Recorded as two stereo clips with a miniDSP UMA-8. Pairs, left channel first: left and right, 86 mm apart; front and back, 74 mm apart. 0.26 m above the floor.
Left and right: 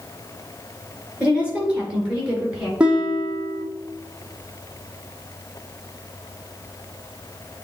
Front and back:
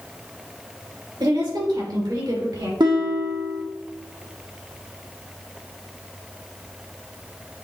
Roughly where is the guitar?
Behind.